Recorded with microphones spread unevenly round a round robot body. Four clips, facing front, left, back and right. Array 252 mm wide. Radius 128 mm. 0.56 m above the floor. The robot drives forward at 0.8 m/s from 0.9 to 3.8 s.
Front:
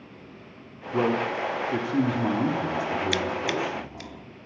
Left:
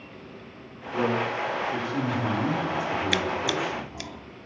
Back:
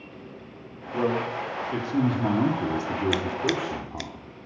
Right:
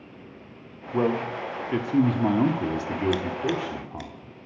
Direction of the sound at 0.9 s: 50° right.